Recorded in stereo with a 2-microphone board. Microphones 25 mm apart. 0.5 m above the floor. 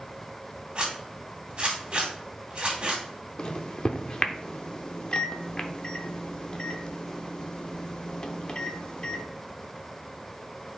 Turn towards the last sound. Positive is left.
turn(degrees=35)  # may be behind; listen again after turning